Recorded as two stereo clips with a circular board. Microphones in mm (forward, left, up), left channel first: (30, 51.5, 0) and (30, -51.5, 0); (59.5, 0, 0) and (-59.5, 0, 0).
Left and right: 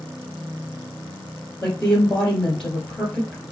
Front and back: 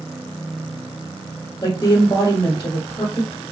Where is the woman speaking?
5° left, 1.4 m.